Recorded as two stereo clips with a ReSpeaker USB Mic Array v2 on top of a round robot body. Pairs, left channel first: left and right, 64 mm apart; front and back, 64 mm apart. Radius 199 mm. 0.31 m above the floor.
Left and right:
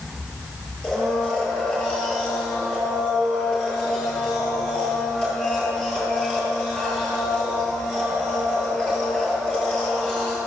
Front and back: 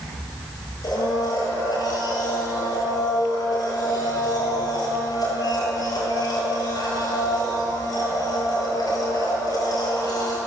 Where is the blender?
15° left, 9.5 m.